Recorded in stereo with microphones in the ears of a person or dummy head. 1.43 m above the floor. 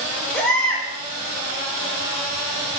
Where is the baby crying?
5° left (ahead or behind), 5.5 m.